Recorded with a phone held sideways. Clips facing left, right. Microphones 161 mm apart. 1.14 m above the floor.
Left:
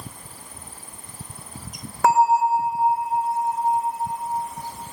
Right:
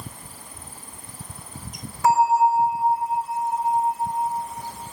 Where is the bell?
65° left (ahead or behind), 0.9 m.